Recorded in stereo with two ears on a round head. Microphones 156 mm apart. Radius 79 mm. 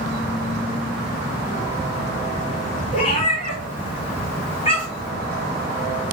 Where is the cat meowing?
35° left (ahead or behind), 2 m.